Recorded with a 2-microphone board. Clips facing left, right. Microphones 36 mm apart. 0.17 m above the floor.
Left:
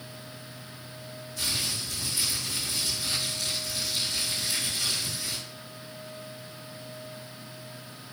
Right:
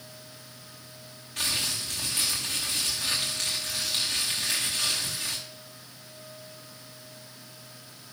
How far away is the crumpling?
About 6.5 m.